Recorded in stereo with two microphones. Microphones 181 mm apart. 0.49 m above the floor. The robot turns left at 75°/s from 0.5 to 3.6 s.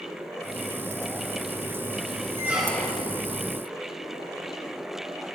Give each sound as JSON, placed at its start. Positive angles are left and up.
{"t": 2.4, "sound": "a squeak", "azimuth_deg": -160, "distance_m": 0.7}